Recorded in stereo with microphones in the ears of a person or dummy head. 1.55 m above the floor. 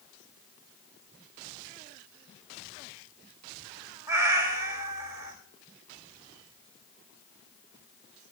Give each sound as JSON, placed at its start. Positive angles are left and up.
{"t": 4.1, "sound": "a cat meowing", "side_deg": -15, "distance_m": 1.4}